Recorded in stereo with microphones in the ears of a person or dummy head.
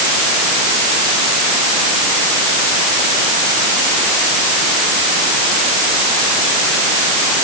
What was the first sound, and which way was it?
Only background noise.